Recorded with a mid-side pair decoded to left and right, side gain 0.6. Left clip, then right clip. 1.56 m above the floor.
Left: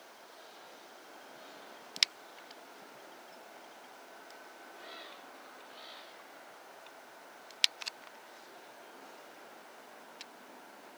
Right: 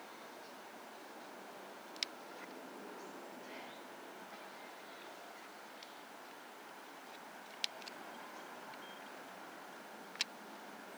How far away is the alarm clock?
No alarm clock in this recording.